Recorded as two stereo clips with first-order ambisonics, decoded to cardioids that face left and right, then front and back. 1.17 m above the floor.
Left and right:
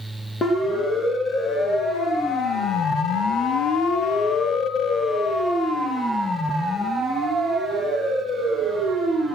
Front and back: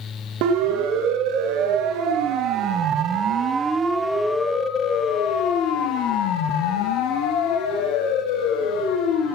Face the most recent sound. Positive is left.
turn(degrees=-5)